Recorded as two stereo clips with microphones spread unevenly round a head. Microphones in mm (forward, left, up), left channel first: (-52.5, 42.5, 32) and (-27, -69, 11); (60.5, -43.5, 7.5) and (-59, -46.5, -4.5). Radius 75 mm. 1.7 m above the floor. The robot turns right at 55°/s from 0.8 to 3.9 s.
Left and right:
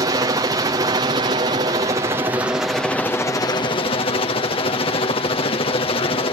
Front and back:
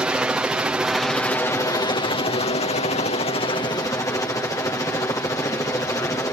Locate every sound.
0.0 s a helicopter: 105° right; by 6.3 s 70° left